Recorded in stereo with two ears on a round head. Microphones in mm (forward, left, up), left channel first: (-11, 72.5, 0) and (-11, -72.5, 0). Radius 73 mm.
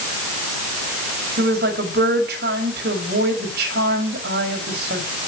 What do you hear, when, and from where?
1.4 s a woman speaking: 70° right (ahead or behind), 5.5 m